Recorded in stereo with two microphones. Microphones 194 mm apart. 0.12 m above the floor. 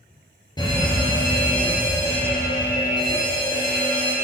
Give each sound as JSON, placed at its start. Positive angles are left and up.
{"t": 0.6, "sound": "a fire alarm", "side_deg": 20, "distance_m": 3.5}